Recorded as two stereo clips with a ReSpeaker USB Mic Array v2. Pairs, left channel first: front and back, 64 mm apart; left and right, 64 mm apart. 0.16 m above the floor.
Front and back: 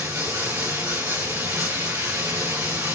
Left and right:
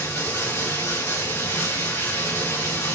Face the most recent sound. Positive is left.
turn(degrees=135)